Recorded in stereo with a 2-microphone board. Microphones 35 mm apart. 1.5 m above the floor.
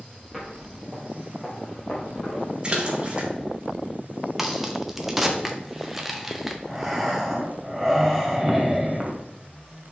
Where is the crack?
10° right (ahead or behind), 0.9 m.